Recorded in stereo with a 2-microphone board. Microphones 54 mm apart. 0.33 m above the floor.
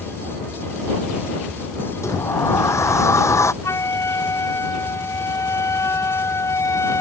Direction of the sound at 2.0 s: 75° left (ahead or behind).